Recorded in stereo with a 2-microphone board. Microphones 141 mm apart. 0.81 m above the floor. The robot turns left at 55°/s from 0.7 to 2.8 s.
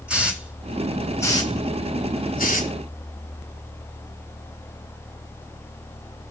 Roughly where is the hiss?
Centre.